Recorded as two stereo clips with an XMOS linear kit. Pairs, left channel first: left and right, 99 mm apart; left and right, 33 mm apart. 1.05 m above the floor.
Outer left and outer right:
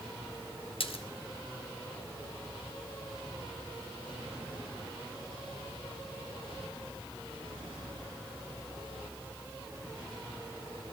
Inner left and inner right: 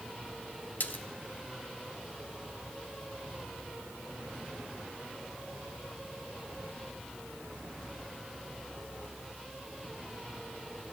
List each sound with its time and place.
0.8 s a splash: 65° left (ahead or behind), 0.8 m